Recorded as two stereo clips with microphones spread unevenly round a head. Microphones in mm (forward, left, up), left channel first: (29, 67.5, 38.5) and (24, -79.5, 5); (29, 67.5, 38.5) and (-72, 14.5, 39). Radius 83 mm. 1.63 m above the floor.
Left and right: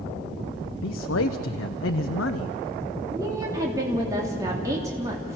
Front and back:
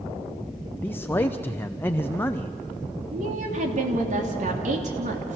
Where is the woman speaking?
165° right, 3 m.